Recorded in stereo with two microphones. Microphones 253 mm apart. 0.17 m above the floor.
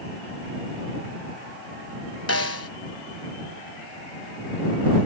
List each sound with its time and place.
2.3 s a snare drum: 80° left